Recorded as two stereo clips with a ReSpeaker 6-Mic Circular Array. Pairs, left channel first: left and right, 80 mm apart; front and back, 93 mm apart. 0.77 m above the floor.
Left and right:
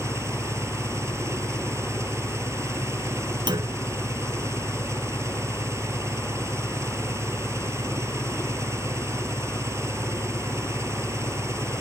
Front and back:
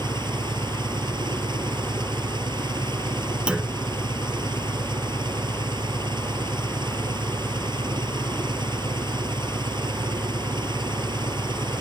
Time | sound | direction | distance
0.0 | an engine running | 145° right | ?
3.5 | a clunk | 100° right | ?